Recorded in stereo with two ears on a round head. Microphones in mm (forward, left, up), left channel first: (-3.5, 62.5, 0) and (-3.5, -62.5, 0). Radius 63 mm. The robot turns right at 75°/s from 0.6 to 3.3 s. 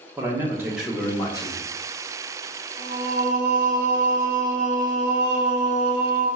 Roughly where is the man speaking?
Ahead.